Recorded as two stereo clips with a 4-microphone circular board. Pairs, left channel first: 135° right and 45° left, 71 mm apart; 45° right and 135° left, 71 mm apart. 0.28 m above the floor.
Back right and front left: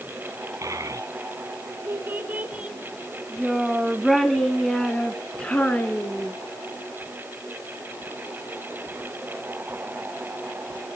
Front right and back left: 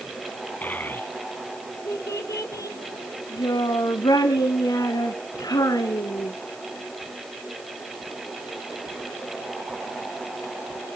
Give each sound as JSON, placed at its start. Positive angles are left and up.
{"t": 0.6, "sound": "a child speaking", "azimuth_deg": 15, "distance_m": 1.8}